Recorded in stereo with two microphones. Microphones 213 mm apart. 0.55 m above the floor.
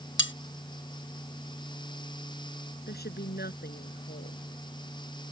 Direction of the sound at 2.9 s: 50° left (ahead or behind).